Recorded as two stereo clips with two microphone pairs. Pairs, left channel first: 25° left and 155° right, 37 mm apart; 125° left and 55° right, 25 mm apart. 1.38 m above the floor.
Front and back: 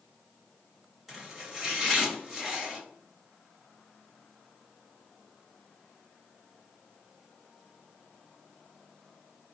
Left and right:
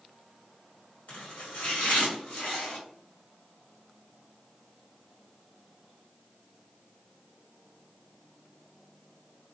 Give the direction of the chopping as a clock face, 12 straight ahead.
8 o'clock.